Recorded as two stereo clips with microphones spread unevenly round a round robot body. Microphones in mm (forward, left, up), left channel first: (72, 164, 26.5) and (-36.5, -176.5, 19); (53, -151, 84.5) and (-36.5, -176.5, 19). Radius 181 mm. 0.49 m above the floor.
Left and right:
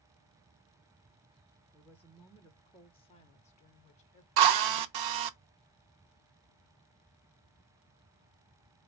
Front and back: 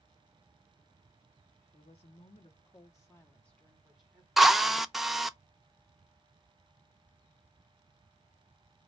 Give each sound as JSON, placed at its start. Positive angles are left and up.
{"t": 1.7, "sound": "a woman speaking", "azimuth_deg": -15, "distance_m": 0.9}
{"t": 4.4, "sound": "a drill", "azimuth_deg": -100, "distance_m": 0.7}